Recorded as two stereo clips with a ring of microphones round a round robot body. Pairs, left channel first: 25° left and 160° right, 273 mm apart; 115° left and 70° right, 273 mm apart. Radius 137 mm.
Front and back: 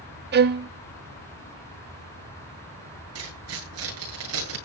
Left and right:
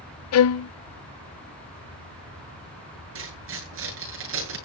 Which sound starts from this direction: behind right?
Tearing paper, at 3.1 s.